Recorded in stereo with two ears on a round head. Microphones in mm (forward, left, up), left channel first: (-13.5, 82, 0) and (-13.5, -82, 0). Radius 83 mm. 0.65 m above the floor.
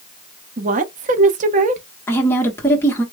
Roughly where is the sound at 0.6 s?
Right.